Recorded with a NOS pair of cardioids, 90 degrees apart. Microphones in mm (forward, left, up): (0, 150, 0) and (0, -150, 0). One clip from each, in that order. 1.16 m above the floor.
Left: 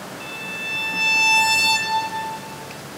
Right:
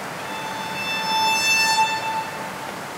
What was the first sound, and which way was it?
A violin, 5° left.